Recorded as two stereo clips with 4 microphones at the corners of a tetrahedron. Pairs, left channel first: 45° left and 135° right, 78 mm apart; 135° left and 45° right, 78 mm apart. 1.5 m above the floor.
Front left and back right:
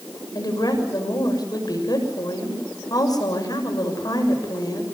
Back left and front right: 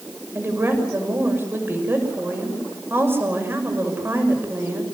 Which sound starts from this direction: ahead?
A woman speaking, at 0.3 s.